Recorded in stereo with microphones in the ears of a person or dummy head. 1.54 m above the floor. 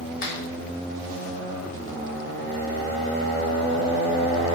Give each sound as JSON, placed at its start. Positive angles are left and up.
{"t": 0.2, "sound": "a finger snap", "side_deg": 55, "distance_m": 1.5}